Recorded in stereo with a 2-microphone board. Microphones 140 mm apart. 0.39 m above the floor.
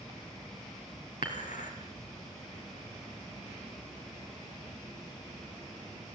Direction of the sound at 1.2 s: 75° left (ahead or behind).